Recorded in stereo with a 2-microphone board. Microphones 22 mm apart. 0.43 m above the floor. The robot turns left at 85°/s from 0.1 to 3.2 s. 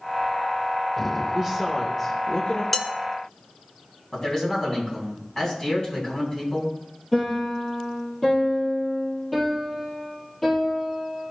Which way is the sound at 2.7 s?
5° left (ahead or behind).